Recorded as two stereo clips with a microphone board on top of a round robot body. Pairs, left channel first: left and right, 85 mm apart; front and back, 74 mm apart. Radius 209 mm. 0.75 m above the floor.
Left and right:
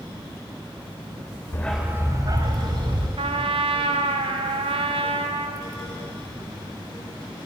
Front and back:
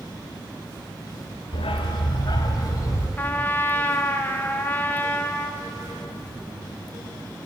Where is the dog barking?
25° left, 0.7 m; by 3.1 s 50° right, 2.5 m.